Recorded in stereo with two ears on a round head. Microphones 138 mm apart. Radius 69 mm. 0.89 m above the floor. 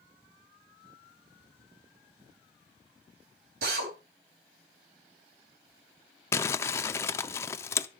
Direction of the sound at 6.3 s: 15° left (ahead or behind).